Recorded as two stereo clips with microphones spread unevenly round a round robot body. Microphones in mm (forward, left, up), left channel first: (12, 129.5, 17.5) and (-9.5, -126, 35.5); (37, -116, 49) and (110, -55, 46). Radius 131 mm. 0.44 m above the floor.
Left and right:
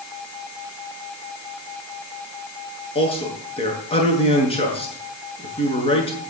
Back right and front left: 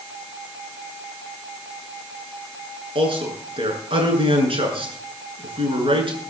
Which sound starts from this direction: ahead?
A man speaking, at 3.0 s.